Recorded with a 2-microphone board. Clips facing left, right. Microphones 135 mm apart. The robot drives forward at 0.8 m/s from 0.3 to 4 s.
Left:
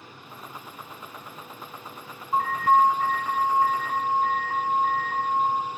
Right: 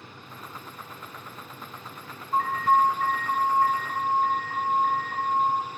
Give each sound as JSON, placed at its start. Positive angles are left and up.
{"t": 2.3, "sound": "an alarm", "side_deg": 35, "distance_m": 5.5}